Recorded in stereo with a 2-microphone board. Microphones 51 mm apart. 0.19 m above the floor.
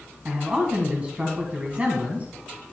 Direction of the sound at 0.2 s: 30° right (ahead or behind).